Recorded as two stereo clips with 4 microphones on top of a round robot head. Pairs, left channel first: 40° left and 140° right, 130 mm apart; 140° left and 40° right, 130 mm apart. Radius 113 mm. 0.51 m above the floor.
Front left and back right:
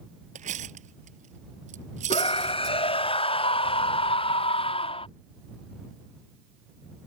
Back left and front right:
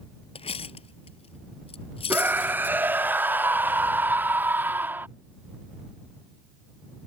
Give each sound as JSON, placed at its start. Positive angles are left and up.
{"t": 0.3, "sound": "cutlery clinking", "azimuth_deg": -175}
{"t": 2.1, "sound": "a scream", "azimuth_deg": 30}